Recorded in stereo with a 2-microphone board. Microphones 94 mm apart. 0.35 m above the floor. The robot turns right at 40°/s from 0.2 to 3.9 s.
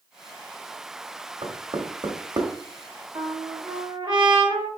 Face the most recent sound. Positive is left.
turn(degrees=-100)